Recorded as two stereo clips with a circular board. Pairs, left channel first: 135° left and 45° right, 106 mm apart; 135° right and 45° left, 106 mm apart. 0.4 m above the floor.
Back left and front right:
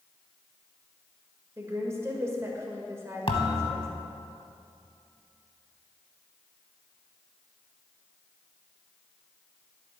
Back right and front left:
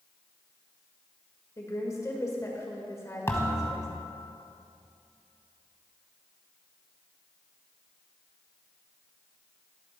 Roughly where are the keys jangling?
No keys jangling in this recording.